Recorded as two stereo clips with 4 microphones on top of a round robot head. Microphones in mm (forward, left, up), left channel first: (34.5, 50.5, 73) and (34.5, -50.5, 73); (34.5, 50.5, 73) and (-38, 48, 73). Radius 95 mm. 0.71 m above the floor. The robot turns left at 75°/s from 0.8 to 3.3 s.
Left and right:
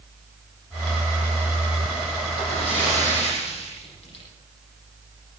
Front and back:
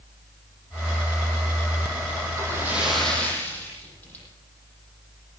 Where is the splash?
140° left, 9 m; by 4.2 s 70° left, 9 m.